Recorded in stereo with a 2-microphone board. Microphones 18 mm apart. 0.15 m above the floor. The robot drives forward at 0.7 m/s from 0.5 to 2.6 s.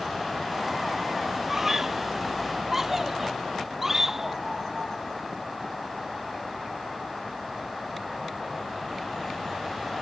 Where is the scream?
10° right (ahead or behind).